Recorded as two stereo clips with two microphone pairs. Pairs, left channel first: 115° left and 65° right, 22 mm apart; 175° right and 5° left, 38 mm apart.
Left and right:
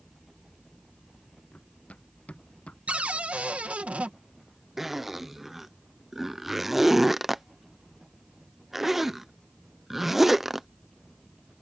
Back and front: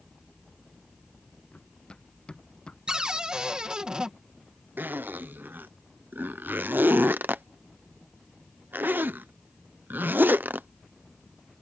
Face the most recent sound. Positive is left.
turn(degrees=10)